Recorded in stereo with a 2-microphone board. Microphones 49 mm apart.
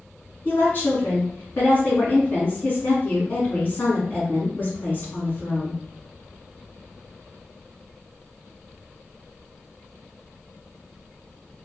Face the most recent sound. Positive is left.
turn(degrees=40)  # may be behind; listen again after turning